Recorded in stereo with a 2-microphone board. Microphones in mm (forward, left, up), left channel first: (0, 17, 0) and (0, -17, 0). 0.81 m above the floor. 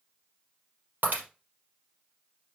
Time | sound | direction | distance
1.0 | breaking glass | 60° right (ahead or behind) | 4 m